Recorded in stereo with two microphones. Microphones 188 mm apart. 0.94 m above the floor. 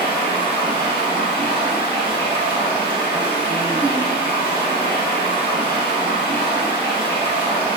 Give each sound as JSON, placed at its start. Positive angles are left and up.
{"t": 0.0, "sound": "running water", "side_deg": -30, "distance_m": 0.9}